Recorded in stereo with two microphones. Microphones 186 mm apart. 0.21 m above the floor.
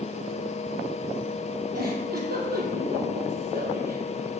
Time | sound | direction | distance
1.7 | a giggle | 55° right (ahead or behind) | 2.5 m